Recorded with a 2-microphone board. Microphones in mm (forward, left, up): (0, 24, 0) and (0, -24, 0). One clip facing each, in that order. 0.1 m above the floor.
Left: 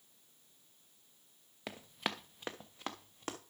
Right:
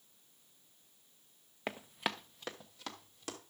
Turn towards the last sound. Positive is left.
turn(degrees=35)  # may be behind; listen again after turning